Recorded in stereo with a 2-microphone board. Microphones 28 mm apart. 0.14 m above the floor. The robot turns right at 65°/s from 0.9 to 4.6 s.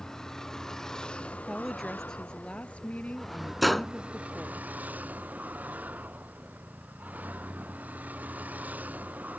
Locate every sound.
0.0 s a vehicle: 20° left; by 9.4 s 100° right
1.5 s a woman speaking: 10° right; by 4.6 s 170° right
3.6 s a gunshot: centre (ahead or behind); by 3.9 s 10° left (ahead or behind)